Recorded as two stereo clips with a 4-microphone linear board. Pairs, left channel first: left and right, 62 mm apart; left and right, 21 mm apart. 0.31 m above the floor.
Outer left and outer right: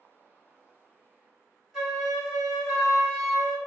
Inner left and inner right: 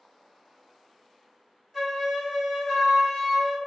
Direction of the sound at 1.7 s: 5° right (ahead or behind).